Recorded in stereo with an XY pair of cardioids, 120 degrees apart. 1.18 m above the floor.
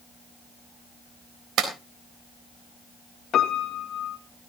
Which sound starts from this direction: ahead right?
A clap, at 1.6 s.